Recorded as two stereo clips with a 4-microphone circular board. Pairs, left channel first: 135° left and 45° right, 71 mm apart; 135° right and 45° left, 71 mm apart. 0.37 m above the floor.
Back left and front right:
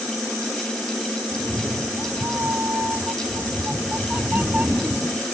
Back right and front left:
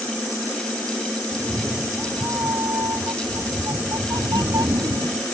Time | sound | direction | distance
1.3 | a cat meowing | 5° left | ?